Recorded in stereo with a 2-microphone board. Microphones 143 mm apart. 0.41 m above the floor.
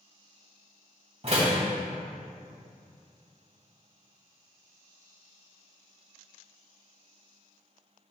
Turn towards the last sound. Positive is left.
turn(degrees=-45)  # may be behind; listen again after turning